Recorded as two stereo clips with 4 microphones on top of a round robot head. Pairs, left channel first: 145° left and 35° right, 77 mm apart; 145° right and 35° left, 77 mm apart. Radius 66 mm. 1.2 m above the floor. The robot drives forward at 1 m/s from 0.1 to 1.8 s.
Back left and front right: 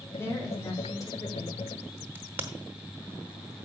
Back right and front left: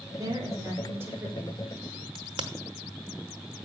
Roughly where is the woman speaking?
Left.